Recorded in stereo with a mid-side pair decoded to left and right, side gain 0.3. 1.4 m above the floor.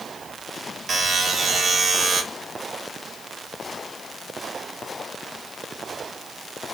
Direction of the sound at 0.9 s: 70° right.